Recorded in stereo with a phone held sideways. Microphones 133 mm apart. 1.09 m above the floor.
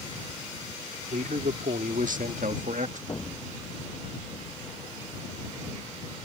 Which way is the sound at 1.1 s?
85° right.